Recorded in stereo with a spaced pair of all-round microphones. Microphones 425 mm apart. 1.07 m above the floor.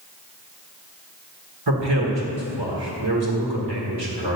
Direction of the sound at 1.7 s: 60° right (ahead or behind).